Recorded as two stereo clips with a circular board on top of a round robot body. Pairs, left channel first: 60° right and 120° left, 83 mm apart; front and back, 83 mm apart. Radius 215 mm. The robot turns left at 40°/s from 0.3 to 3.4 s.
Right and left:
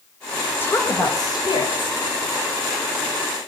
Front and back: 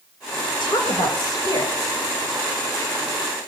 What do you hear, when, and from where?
0.6 s a woman speaking: straight ahead, 3 m; by 2.0 s 50° right, 3 m